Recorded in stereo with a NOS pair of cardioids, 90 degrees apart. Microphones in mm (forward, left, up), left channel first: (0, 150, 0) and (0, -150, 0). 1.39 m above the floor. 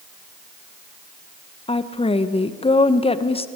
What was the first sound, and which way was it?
A woman speaking, 20° left.